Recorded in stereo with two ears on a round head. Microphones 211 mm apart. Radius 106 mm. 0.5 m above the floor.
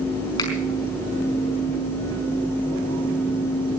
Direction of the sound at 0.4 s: 20° left (ahead or behind).